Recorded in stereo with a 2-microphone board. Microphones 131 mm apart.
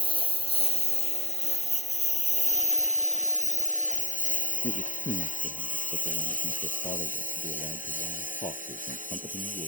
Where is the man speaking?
60° left (ahead or behind).